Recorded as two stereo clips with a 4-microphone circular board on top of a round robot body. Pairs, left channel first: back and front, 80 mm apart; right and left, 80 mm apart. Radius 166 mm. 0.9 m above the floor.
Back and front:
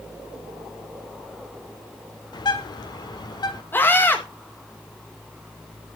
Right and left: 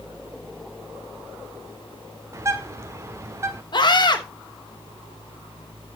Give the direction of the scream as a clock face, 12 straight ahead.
4 o'clock.